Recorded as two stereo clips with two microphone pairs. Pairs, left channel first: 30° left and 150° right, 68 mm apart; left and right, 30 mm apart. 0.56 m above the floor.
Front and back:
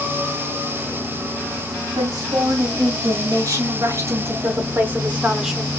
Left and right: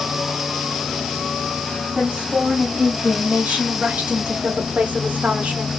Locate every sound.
1.9 s a woman speaking: 140° right, 3 m; by 5.7 s 55° right, 1.3 m